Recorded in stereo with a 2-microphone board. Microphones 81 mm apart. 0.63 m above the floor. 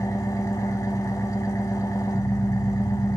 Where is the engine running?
45° left (ahead or behind), 0.9 m.